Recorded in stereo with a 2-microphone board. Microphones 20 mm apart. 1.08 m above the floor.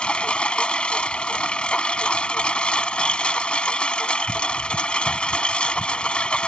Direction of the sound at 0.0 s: 55° left (ahead or behind).